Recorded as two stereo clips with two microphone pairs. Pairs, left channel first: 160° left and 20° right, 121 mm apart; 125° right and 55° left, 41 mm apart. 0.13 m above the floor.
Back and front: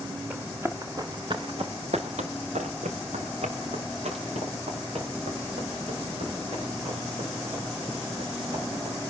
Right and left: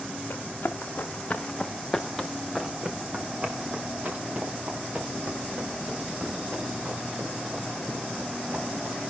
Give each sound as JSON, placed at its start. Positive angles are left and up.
{"t": 0.3, "sound": "running footsteps", "azimuth_deg": -95, "distance_m": 2.5}